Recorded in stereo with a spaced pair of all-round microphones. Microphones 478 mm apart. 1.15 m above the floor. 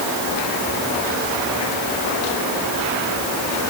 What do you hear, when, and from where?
Only background noise.